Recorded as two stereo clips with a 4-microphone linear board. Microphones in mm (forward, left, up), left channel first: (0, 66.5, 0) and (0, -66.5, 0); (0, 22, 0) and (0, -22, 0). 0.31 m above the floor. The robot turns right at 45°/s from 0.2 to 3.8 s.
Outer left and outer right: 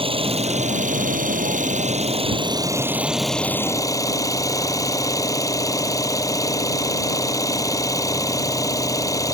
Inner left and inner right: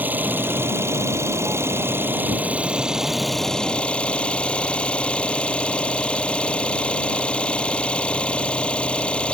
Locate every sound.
0.0 s an engine running: 135° right; by 9.3 s 25° left